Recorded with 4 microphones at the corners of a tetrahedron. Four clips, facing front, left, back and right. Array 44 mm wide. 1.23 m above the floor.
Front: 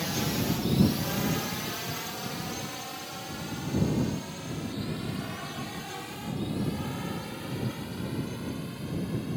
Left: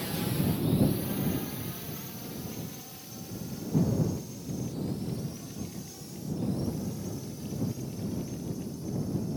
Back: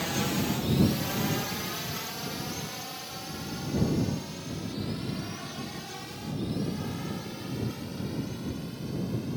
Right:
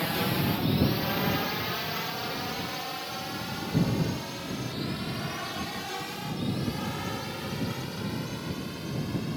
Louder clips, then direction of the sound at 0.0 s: Right 4 dB, back 1 dB; 100° right.